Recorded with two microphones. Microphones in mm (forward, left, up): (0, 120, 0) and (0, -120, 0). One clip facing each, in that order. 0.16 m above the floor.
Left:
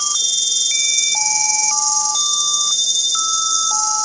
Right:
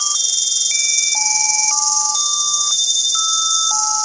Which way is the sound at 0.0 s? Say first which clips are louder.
Left 2 dB; 60° left (ahead or behind).